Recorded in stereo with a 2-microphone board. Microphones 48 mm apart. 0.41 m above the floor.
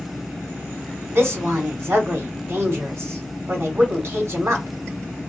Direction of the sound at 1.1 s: 60° right (ahead or behind).